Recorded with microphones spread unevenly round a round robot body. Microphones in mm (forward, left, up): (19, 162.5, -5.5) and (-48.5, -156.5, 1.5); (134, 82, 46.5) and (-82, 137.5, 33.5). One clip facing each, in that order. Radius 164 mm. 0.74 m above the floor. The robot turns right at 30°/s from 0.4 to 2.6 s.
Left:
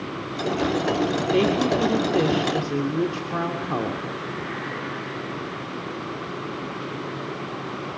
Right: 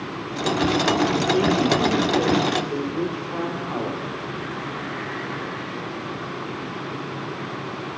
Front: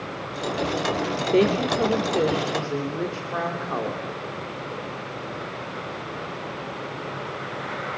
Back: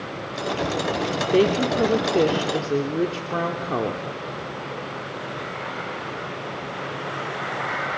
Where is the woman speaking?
80° left, 2 m; by 4.1 s 120° left, 2 m.